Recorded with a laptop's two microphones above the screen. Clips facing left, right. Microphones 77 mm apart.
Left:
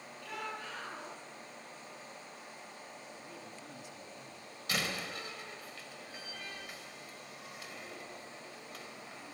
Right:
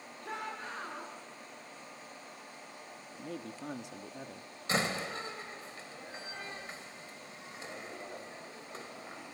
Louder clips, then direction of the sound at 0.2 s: Right 2 dB; 35° right (ahead or behind).